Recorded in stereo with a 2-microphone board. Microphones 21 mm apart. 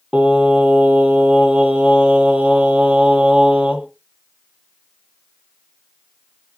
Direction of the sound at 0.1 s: 75° right (ahead or behind).